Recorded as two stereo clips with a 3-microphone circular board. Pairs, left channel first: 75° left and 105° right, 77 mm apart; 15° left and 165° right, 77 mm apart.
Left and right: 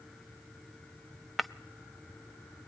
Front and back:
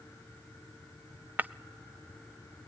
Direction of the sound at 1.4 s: 165° left.